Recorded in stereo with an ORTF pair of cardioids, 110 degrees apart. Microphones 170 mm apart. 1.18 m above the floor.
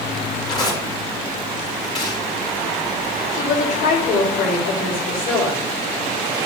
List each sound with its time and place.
0.5 s tearing paper: 25° left, 4.5 m
3.3 s a woman speaking: 60° left, 3.5 m